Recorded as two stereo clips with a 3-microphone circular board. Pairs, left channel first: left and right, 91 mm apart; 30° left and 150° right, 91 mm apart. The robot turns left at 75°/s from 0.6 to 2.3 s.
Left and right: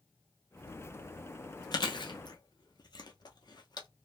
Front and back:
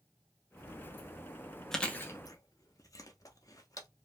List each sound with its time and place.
1.7 s chewing: 115° left, 0.6 m; by 3.9 s 70° left, 0.6 m